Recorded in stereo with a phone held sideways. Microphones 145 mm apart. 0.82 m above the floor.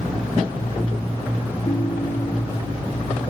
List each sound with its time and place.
1.6 s a ringtone: 45° left (ahead or behind), 4 m